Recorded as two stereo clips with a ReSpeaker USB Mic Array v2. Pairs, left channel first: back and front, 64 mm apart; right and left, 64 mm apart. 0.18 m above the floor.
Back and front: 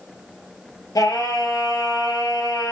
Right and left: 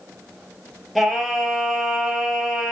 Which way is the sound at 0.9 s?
Straight behind.